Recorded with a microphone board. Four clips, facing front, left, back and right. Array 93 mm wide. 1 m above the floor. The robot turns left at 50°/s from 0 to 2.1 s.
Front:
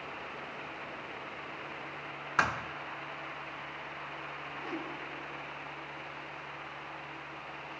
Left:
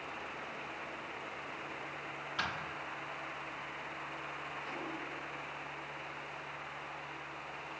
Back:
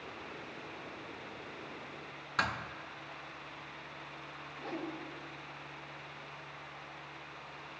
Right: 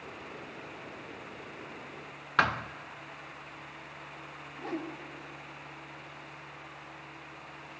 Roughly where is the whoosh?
Right.